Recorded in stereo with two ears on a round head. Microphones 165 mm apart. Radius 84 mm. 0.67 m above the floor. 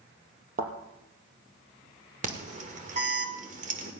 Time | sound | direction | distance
0.6 | a thud | 40° right (ahead or behind) | 3.5 m
2.2 | an alarm | 40° right (ahead or behind) | 1.9 m